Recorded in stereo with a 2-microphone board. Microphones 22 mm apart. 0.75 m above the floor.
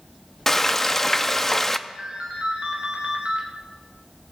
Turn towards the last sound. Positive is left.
turn(degrees=-70)  # may be behind; listen again after turning